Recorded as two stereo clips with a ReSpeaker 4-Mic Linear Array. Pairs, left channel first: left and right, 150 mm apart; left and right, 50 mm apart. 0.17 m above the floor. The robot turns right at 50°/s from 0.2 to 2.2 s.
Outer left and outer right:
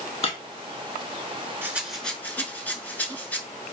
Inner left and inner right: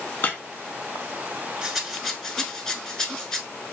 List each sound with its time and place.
0.2 s breaking glass: 40° left (ahead or behind), 0.6 m
1.6 s a rattle: 15° right (ahead or behind), 0.6 m; by 3.4 s 10° left (ahead or behind), 0.6 m